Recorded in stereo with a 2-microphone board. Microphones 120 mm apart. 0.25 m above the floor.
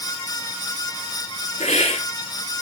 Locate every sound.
1.6 s a hiss: 65° left (ahead or behind), 3 m